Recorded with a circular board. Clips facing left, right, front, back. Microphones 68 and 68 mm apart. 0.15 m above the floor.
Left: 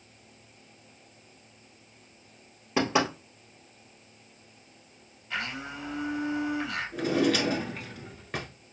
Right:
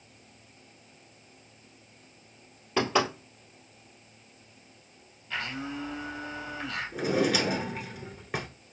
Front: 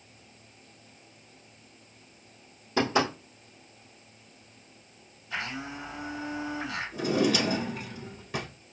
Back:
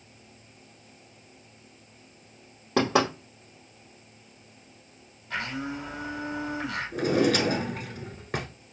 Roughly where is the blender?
Behind.